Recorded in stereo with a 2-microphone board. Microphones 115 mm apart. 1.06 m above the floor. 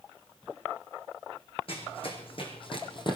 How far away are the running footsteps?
About 4 m.